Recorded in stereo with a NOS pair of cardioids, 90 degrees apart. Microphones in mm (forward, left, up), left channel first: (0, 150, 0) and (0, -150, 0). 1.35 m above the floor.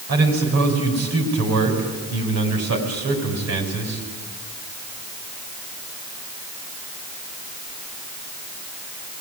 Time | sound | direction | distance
0.1 | a man speaking | 60° right | 6.5 m